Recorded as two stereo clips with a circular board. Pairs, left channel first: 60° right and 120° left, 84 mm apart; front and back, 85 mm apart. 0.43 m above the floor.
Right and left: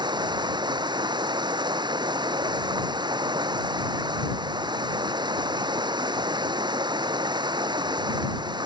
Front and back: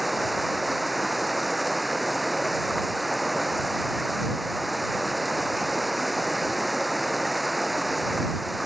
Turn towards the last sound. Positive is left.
turn(degrees=90)